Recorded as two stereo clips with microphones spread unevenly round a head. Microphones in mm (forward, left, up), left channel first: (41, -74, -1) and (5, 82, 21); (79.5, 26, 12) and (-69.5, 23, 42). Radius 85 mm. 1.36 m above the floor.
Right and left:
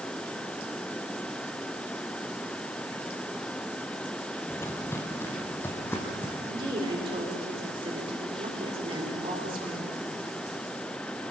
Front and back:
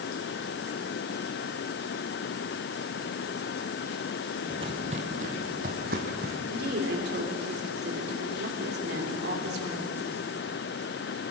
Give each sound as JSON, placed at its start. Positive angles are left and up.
{"t": 4.5, "sound": "footsteps", "azimuth_deg": -155, "distance_m": 1.6}
{"t": 6.5, "sound": "a woman speaking", "azimuth_deg": 165, "distance_m": 4.0}